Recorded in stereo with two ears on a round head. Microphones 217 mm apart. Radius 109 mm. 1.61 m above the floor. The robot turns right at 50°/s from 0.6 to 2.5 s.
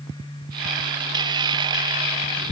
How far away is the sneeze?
I don't hear a sneeze.